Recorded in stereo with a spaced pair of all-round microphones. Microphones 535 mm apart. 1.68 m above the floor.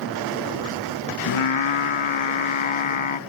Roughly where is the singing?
Left.